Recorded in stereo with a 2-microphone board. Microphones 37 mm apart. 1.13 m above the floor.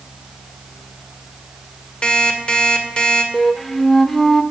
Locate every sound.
2.0 s an alarm clock: 30° left (ahead or behind), 2 m
3.3 s a flute: 10° left (ahead or behind), 0.9 m